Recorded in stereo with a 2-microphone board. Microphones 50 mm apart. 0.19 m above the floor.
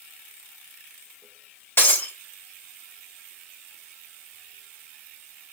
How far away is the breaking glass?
About 1.6 m.